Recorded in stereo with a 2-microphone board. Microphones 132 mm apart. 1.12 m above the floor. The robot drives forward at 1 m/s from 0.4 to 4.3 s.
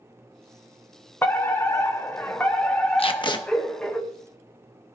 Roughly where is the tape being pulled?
Left.